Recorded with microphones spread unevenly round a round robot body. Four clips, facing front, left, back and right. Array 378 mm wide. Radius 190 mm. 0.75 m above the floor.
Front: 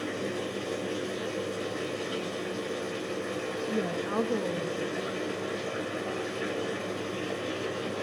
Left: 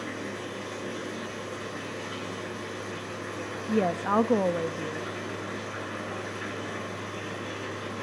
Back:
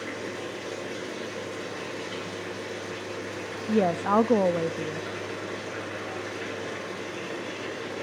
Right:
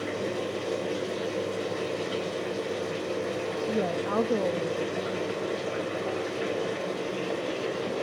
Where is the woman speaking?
150° left, 0.8 m.